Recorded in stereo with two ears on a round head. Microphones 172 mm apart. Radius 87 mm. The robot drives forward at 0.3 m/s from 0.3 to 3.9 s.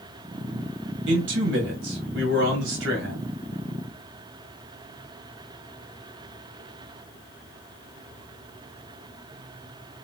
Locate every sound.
1.1 s a man speaking: 60° right (ahead or behind), 2 m; by 3.3 s 65° right (ahead or behind), 2 m